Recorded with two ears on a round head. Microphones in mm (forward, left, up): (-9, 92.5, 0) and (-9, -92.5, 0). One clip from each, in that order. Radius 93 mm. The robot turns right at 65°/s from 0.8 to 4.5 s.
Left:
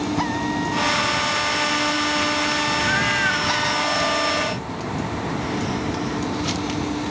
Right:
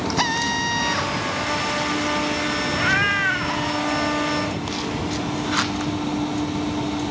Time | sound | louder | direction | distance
0.2 | a drill | right 6 dB | 80° right | ?
2.7 | a cat meowing | even | 50° right | ?